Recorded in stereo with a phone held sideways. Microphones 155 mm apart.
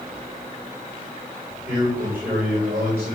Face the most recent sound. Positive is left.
turn(degrees=-10)  # may be behind; listen again after turning